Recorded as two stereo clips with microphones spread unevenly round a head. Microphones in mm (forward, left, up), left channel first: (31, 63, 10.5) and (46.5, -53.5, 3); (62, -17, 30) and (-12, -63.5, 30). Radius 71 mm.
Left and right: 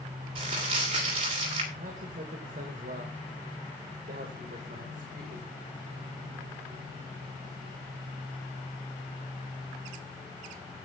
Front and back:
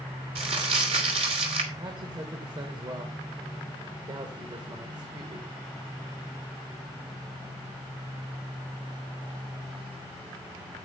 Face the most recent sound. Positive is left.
turn(degrees=-110)